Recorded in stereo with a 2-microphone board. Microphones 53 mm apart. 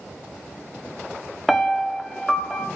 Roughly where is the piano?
Centre.